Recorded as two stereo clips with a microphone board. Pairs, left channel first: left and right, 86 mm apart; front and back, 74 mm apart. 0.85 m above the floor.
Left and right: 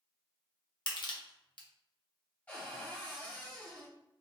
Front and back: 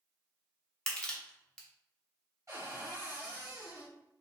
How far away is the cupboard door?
About 0.9 m.